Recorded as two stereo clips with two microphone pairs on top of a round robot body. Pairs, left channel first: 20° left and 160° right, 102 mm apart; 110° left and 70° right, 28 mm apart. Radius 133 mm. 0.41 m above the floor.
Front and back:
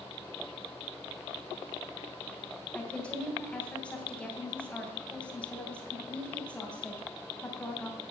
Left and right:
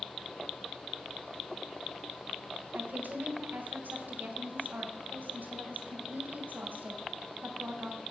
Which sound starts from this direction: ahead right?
A woman speaking, at 2.7 s.